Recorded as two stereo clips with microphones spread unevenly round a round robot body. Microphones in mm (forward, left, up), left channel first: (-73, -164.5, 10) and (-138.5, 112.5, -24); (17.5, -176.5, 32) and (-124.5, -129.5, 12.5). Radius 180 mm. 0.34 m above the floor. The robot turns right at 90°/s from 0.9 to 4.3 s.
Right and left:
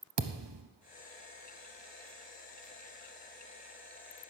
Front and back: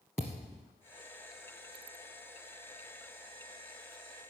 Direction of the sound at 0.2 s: 65° left.